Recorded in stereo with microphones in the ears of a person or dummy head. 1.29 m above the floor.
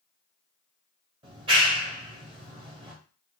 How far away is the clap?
About 1.0 m.